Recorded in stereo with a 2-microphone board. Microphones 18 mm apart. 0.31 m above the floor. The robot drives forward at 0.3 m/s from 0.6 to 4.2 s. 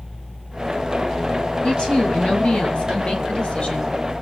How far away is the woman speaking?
About 5.5 m.